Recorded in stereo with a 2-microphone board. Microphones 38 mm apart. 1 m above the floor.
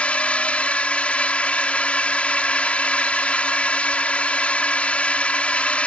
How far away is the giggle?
No giggle in this recording.